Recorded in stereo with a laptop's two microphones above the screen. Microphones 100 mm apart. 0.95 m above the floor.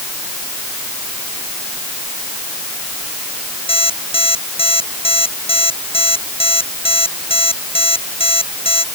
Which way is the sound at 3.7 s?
75° left (ahead or behind).